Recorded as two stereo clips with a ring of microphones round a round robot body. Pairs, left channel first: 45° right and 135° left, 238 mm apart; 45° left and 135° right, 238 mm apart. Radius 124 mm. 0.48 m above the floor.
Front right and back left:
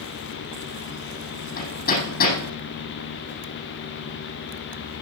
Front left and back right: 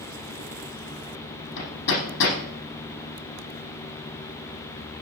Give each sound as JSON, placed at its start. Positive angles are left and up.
{"t": 1.6, "sound": "hammering", "azimuth_deg": 5, "distance_m": 6.0}